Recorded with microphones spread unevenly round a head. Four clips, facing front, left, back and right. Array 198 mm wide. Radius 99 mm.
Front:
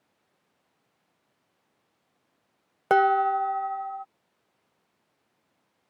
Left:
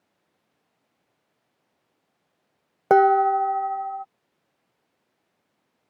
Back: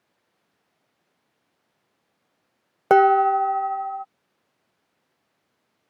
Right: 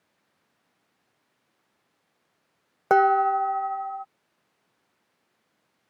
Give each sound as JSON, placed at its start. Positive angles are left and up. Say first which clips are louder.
{"t": 2.9, "sound": "dishes clattering", "louder": "left 3 dB, back 5 dB", "azimuth_deg": 150}